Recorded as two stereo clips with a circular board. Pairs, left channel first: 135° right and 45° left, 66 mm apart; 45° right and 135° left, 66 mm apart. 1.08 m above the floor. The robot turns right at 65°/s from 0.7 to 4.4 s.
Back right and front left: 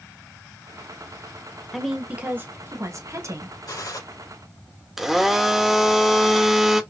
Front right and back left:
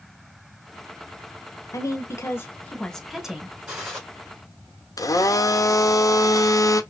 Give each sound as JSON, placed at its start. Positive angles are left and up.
{"t": 1.7, "sound": "a woman speaking", "azimuth_deg": -45, "distance_m": 0.9}
{"t": 3.7, "sound": "a gunshot", "azimuth_deg": -150, "distance_m": 3.5}
{"t": 5.0, "sound": "a blender", "azimuth_deg": -40, "distance_m": 0.5}